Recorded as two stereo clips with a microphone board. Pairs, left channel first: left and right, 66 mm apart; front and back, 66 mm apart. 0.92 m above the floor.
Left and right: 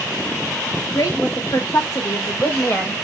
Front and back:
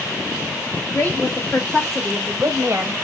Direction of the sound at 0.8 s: 60° left.